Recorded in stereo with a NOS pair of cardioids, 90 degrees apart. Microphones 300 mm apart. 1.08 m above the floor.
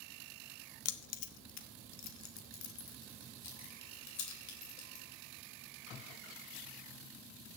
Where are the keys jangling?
55° left, 0.9 m; by 5.0 s 70° left, 4 m.